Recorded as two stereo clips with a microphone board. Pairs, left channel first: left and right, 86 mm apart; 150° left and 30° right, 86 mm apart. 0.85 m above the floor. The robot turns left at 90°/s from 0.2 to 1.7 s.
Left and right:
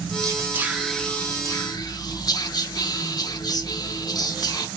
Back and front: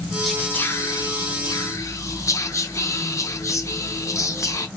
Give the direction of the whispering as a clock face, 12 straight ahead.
4 o'clock.